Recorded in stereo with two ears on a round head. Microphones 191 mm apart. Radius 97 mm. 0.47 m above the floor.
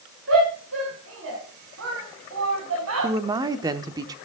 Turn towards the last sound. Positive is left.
turn(degrees=-15)  # may be behind; listen again after turning